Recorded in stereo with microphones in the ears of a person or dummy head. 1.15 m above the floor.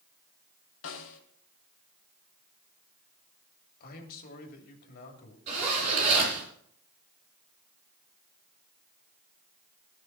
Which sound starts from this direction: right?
A zipper, at 5.5 s.